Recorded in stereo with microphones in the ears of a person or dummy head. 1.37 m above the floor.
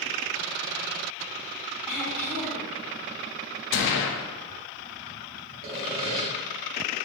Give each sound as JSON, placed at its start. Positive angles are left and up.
{"t": 1.9, "sound": "throat clearing", "side_deg": 0, "distance_m": 0.8}
{"t": 3.7, "sound": "a gunshot", "side_deg": 65, "distance_m": 0.6}
{"t": 5.6, "sound": "sawing", "side_deg": -50, "distance_m": 1.8}